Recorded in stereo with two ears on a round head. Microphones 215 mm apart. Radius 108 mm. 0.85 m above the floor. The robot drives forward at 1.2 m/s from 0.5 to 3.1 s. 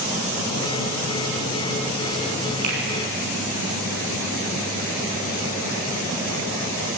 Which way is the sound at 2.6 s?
85° right.